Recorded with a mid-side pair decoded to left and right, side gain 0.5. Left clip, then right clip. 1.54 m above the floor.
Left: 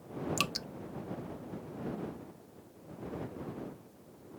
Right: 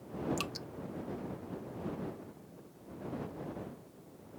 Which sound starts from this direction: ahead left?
Dripping, at 0.4 s.